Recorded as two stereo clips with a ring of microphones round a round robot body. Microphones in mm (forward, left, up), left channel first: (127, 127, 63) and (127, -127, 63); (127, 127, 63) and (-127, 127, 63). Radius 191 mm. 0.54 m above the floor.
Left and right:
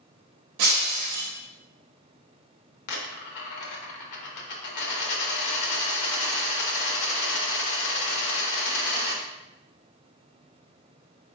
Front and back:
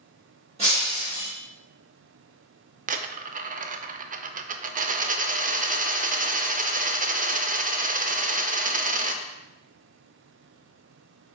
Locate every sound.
0.6 s breaking glass: 105° right, 0.8 m
2.9 s a dropped coin: 115° left, 0.5 m